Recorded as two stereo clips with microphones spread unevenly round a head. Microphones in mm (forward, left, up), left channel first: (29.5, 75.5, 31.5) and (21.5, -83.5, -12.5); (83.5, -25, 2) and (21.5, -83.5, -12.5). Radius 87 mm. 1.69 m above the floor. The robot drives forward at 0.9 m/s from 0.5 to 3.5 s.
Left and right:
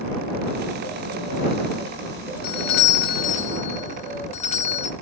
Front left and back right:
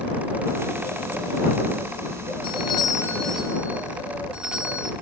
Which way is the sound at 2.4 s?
60° left.